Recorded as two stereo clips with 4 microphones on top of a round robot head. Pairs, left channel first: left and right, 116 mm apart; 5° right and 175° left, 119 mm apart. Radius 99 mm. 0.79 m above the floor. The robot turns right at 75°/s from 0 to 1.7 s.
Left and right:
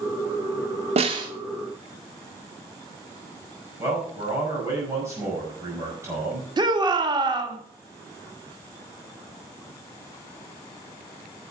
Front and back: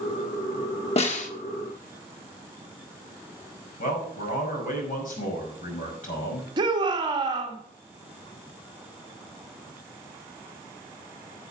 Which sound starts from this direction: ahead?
A man speaking, at 3.8 s.